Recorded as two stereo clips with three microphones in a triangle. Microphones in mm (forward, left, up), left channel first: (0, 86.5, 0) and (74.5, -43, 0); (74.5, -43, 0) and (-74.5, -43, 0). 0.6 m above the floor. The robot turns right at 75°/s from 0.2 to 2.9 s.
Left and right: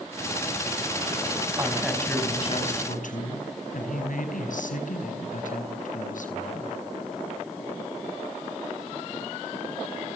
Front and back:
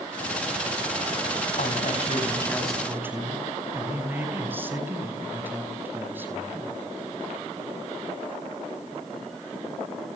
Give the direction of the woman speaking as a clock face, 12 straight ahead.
12 o'clock.